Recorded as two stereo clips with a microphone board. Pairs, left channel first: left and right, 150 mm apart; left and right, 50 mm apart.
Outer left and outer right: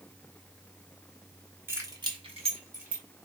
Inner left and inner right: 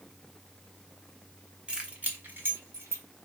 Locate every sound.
1.7 s keys jangling: 15° right (ahead or behind), 1.4 m; by 3.0 s 60° right (ahead or behind), 1.7 m